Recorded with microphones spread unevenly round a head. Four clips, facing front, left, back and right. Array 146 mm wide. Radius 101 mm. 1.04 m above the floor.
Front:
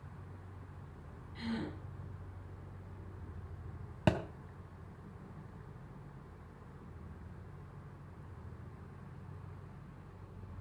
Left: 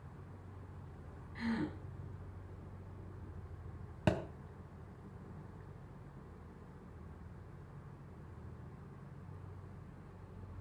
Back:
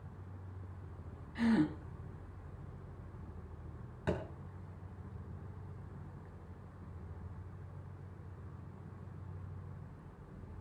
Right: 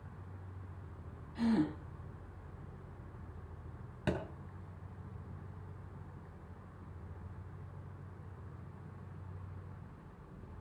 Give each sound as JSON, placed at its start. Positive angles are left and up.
{"t": 1.4, "sound": "a gasp", "azimuth_deg": -160, "distance_m": 2.5}
{"t": 4.1, "sound": "a thud", "azimuth_deg": 10, "distance_m": 2.5}